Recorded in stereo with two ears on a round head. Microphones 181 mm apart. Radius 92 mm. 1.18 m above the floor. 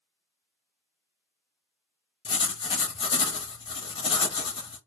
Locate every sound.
2.2 s writing: 25° left (ahead or behind), 0.7 m